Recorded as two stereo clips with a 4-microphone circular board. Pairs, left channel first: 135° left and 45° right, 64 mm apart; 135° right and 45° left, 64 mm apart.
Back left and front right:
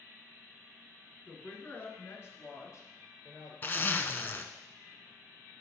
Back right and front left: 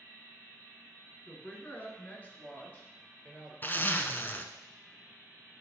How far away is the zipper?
About 0.6 m.